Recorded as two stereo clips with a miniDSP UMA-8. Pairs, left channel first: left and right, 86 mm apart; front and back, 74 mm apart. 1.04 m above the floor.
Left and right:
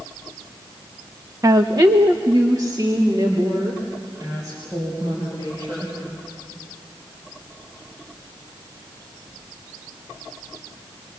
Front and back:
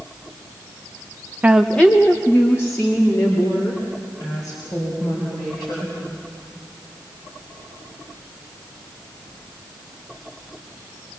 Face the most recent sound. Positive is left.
turn(degrees=-40)